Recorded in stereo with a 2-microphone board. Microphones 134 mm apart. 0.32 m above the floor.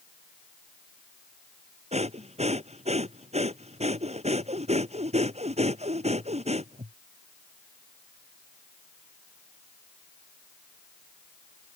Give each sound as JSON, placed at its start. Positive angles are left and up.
{"t": 1.9, "sound": "breathing", "side_deg": -55}